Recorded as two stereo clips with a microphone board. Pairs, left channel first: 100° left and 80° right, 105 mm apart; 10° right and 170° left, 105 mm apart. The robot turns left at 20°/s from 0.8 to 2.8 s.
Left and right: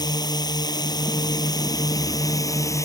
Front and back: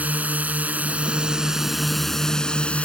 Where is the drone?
105° left; by 2.9 s 65° left.